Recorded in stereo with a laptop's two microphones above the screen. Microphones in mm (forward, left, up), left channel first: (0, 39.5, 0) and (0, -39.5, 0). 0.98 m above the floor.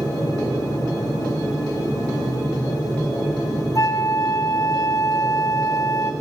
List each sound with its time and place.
0.0 s a machine running: 50° left (ahead or behind), 4.5 m
3.8 s a flute: 45° left (ahead or behind), 0.5 m